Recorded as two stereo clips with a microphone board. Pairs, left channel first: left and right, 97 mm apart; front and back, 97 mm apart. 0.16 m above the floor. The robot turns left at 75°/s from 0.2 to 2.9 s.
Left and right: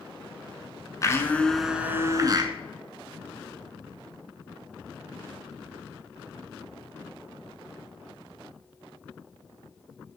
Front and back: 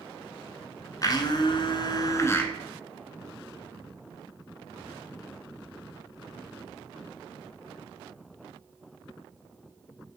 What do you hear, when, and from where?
1.0 s a blender: 45° left, 0.7 m; by 2.5 s 70° right, 0.7 m